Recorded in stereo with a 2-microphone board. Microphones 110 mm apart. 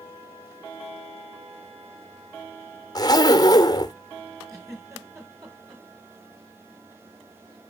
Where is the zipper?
35° left (ahead or behind), 1.0 m.